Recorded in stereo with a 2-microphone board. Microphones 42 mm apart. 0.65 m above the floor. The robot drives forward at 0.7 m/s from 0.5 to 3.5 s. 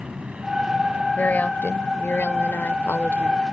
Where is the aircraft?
25° right (ahead or behind).